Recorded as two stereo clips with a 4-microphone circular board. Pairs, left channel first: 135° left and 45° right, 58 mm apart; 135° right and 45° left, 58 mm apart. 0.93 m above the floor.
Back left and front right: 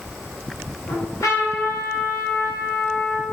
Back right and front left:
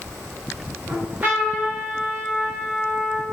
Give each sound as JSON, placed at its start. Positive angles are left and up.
{"t": 0.9, "sound": "a trumpet", "azimuth_deg": 105, "distance_m": 0.9}